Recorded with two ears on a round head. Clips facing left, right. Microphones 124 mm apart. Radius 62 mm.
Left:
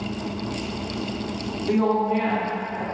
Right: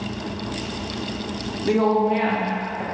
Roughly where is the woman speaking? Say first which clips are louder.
Right 3 dB; right.